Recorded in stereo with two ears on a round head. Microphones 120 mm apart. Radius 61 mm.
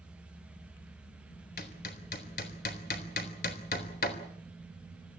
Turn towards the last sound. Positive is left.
turn(degrees=70)  # may be behind; listen again after turning